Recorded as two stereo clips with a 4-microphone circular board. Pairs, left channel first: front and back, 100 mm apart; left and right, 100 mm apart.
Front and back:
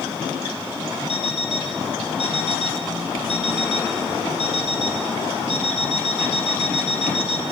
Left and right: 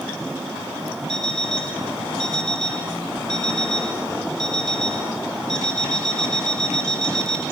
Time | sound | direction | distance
1.1 | an alarm clock | 5° left | 3.5 m